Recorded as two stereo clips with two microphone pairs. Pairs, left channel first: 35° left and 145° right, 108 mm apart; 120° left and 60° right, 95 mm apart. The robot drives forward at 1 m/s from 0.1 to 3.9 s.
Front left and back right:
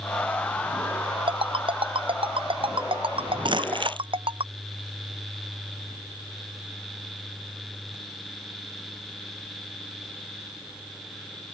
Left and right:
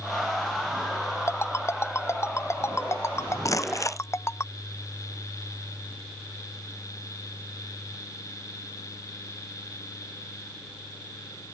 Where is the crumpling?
175° left.